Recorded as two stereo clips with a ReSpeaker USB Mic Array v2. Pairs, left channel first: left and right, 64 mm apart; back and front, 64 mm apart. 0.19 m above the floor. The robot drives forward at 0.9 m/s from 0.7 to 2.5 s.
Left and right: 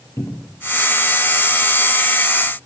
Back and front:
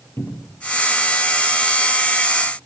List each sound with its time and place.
0.2 s a cupboard door: 130° left, 3.5 m